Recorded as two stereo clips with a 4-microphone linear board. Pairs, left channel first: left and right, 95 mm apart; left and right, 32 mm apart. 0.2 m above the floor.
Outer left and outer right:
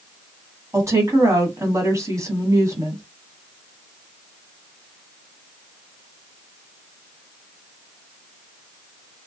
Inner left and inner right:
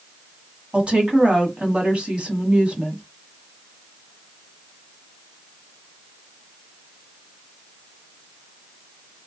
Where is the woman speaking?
35° right (ahead or behind), 1.1 m.